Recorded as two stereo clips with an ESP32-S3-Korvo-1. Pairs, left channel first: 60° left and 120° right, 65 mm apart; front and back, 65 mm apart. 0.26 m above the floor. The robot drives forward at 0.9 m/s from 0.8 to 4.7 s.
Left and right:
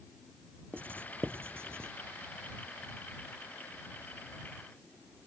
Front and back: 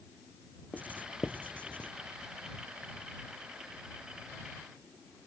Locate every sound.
0.7 s writing: 65° right; by 1.9 s 70° right